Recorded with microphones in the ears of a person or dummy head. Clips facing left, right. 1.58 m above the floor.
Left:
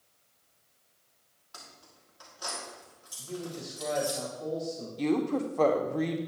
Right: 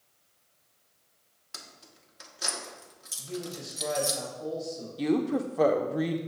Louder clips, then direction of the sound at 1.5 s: Right 1 dB; 30° right (ahead or behind).